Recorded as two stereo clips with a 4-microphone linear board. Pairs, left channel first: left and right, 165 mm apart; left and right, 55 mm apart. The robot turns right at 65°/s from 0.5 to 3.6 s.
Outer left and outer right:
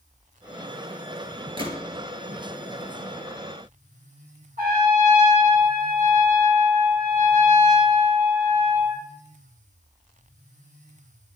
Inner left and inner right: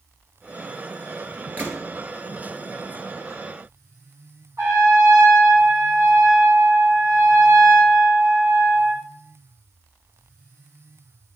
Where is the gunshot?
30° right (ahead or behind), 1.9 m; by 1.8 s 40° right (ahead or behind), 1.9 m.